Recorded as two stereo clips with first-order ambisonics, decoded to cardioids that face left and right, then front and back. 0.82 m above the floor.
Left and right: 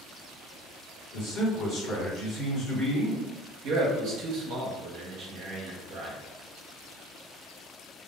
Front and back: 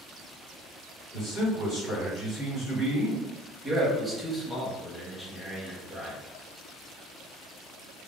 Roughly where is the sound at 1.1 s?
Ahead left.